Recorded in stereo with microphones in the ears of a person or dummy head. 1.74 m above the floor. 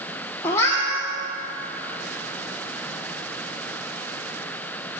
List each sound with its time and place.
0.4 s a cat meowing: 15° left (ahead or behind), 2 m